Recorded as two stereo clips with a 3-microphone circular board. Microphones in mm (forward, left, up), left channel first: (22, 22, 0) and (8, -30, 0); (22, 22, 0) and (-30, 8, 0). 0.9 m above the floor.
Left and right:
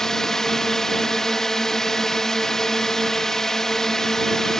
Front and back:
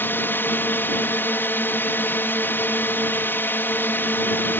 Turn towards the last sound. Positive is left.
turn(degrees=0)